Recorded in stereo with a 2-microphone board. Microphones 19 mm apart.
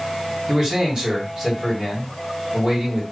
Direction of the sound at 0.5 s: 50° right (ahead or behind).